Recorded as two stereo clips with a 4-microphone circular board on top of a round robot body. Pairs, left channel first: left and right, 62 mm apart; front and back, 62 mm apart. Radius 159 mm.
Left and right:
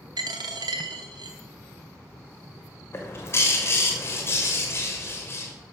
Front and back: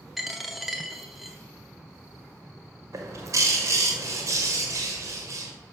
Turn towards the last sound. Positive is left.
turn(degrees=140)